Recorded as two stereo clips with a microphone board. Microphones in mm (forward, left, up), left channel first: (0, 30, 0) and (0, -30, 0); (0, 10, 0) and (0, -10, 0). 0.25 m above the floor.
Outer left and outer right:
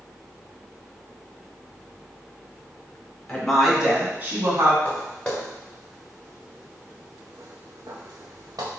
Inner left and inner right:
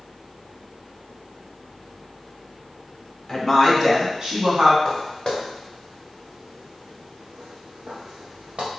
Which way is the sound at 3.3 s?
15° left (ahead or behind).